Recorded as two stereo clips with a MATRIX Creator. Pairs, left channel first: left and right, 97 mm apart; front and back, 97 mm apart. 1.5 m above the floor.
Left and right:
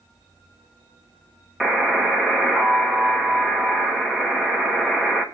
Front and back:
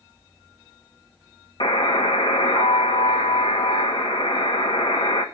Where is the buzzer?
Straight ahead, 1.4 m.